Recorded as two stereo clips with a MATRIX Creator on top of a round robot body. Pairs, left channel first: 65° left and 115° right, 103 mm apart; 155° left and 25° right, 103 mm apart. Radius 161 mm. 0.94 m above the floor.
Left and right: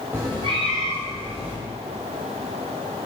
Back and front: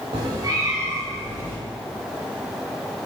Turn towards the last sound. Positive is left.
turn(degrees=-90)